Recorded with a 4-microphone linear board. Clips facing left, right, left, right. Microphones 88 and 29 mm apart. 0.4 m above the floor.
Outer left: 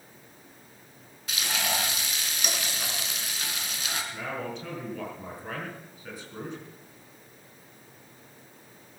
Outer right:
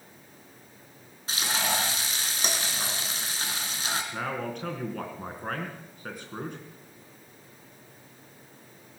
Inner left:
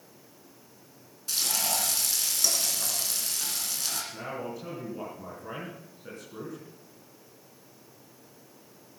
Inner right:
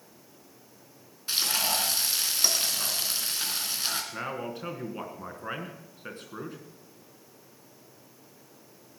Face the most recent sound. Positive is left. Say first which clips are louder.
# outer right 2 dB, inner right 2 dB
turn(degrees=-50)  # may be behind; listen again after turning